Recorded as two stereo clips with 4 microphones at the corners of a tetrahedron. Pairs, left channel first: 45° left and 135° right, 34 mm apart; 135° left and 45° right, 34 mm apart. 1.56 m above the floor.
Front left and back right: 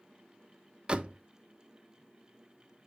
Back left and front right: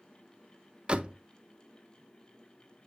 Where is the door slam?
85° right, 0.5 m.